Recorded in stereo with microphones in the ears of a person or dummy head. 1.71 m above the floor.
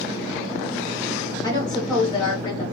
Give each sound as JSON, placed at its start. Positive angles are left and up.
{"t": 1.4, "sound": "a woman speaking", "side_deg": 25, "distance_m": 1.3}